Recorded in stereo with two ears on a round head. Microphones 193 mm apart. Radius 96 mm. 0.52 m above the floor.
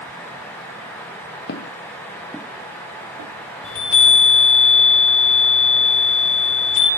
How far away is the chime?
About 5.5 m.